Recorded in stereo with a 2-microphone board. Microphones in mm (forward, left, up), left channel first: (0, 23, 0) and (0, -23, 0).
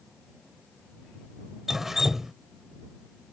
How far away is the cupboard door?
No cupboard door in this recording.